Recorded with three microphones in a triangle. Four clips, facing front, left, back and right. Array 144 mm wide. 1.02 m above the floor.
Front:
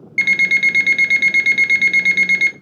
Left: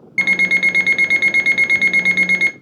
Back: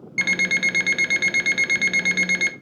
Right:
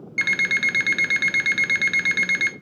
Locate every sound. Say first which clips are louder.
0.2 s an alarm clock: left 6 dB, front 6 dB; 105° left, 0.5 m